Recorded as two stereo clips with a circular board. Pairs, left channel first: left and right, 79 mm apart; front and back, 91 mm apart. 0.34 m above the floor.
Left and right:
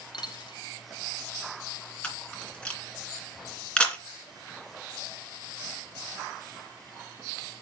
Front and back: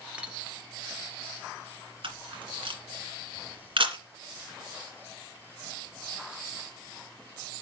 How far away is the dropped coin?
About 1.8 m.